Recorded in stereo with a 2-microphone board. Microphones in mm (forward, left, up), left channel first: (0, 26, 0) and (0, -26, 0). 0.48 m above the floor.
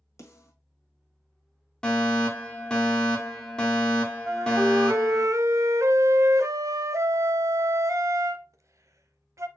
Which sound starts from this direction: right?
A flute, at 4.3 s.